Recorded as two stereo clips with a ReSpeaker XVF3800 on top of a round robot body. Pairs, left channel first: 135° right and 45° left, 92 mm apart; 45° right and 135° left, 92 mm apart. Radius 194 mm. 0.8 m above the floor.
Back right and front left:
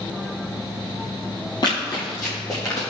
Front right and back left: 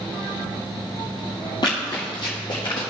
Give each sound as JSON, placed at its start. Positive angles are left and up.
{"t": 1.6, "sound": "running footsteps", "azimuth_deg": -90, "distance_m": 1.3}